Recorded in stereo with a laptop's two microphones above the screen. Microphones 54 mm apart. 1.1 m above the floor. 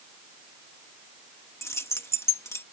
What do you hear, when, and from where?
1.6 s keys jangling: 60° left (ahead or behind)